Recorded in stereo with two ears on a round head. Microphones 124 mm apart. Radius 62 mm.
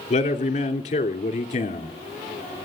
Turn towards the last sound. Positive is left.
turn(degrees=45)  # may be behind; listen again after turning